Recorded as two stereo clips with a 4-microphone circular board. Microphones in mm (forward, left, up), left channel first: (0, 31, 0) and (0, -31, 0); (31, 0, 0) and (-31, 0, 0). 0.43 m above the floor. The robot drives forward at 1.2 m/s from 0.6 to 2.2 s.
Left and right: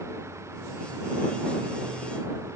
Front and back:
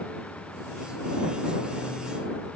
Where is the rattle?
I don't hear a rattle.